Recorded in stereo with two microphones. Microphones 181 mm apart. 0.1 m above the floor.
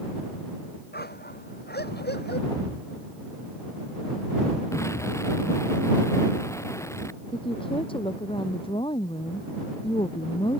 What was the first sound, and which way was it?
A dog barking, 65° left (ahead or behind).